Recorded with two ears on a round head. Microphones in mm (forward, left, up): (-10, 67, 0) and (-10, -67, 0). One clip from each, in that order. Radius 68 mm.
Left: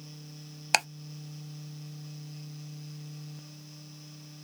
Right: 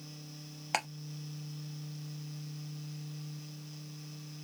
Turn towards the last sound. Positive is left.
turn(degrees=75)  # may be behind; listen again after turning